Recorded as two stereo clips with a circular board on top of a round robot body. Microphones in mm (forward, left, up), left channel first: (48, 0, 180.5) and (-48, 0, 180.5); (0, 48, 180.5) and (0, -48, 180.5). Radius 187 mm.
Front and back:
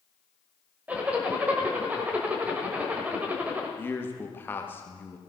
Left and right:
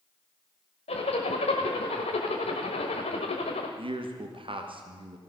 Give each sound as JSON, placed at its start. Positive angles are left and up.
{"t": 0.9, "sound": "a zipper", "azimuth_deg": 105, "distance_m": 1.0}
{"t": 3.8, "sound": "a man speaking", "azimuth_deg": -70, "distance_m": 1.7}